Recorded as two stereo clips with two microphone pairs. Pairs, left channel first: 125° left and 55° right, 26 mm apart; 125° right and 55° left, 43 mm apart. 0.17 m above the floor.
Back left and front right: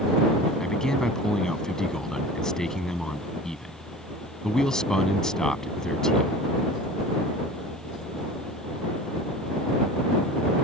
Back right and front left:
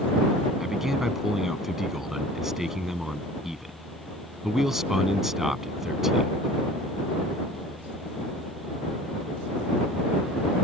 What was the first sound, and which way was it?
A man speaking, 125° left.